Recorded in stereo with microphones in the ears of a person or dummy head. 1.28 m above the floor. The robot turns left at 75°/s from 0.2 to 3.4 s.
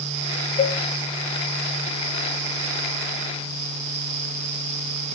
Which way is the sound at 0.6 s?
30° left (ahead or behind).